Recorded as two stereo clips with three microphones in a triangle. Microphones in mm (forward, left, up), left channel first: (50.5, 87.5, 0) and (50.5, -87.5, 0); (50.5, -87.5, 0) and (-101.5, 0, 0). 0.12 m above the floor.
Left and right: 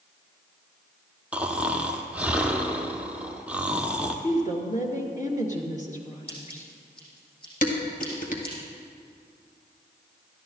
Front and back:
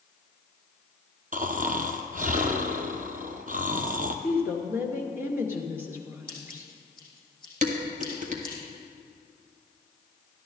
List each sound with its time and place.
1.3 s snoring: 170° right, 1.0 m
4.2 s a woman speaking: 80° left, 1.9 m
6.3 s scissors: 35° left, 5.5 m
7.6 s dishes clattering: 115° left, 1.7 m